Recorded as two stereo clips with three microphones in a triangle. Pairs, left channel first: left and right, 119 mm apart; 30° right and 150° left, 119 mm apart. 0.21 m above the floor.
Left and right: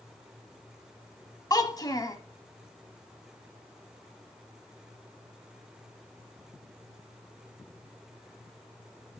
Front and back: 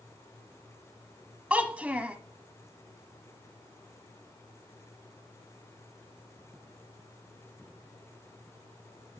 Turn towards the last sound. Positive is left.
turn(degrees=80)